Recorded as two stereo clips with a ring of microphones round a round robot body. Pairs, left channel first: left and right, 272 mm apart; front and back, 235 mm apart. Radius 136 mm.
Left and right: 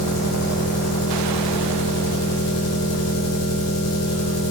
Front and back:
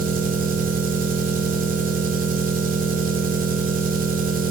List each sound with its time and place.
0.0 s an engine running: 125° left, 2.5 m